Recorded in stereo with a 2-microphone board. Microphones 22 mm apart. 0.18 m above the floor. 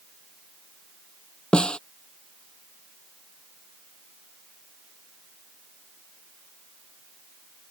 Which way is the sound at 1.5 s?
55° left (ahead or behind).